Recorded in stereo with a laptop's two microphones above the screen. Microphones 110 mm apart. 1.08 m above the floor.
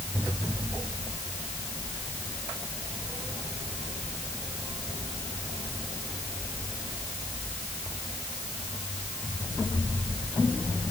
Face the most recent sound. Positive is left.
No sound to turn to.